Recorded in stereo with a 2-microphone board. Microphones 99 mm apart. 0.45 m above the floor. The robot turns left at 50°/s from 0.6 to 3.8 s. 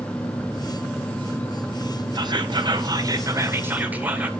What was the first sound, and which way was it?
Whispering, 75° right.